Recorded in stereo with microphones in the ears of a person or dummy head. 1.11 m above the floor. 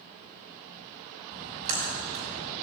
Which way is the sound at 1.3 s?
40° right (ahead or behind).